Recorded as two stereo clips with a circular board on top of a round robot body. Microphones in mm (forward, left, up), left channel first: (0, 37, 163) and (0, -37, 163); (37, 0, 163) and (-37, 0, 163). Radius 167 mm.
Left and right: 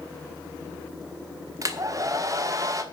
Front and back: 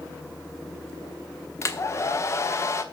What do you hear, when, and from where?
1.6 s a hair dryer: 50° right, 1.3 m